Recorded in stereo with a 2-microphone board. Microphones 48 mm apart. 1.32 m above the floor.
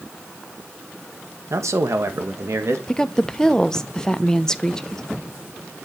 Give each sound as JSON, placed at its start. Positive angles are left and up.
{"t": 1.5, "sound": "a man speaking", "side_deg": -75, "distance_m": 1.7}
{"t": 2.9, "sound": "a woman speaking", "side_deg": 15, "distance_m": 0.8}